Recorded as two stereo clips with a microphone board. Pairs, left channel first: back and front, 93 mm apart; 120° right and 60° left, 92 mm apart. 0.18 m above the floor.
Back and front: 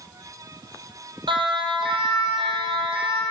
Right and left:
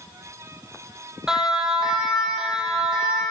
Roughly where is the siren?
Ahead right.